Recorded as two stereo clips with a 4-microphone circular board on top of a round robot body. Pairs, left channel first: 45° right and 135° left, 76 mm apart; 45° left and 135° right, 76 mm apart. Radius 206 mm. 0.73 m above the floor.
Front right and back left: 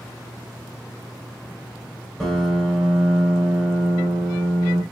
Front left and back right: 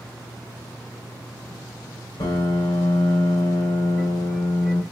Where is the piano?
45° left, 2.5 m.